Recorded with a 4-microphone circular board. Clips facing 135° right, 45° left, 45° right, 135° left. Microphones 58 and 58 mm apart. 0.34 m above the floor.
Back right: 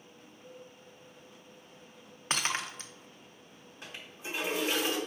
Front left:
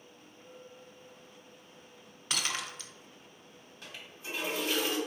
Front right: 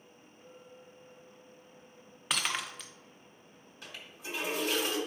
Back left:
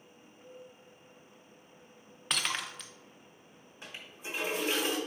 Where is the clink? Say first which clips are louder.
Even, back left 2 dB; 75° left, 2.0 m.